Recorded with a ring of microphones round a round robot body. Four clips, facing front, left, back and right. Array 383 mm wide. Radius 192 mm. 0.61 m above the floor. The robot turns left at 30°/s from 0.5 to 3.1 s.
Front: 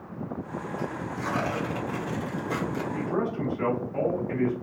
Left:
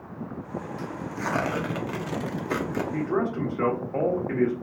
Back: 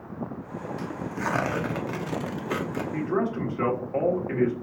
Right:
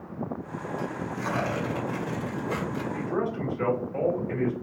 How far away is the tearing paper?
About 1.0 m.